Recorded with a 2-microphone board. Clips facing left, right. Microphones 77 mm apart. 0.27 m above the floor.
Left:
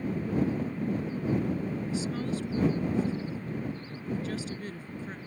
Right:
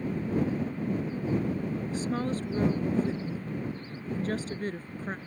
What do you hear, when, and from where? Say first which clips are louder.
1.9 s a woman speaking: right 3 dB; 45° right (ahead or behind)